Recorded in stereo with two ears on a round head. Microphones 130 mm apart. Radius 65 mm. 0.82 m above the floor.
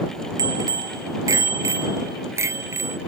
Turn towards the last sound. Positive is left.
turn(degrees=-15)  # may be behind; listen again after turning